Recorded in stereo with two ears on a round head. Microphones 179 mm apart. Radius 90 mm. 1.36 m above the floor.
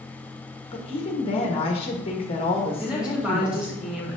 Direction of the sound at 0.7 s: 30° left (ahead or behind).